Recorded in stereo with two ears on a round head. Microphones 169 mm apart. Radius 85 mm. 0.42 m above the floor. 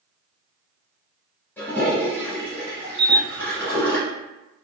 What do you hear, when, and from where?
1.6 s a toilet flushing: 10° left (ahead or behind), 1.1 m
3.0 s a camera shutter: 5° right (ahead or behind), 0.9 m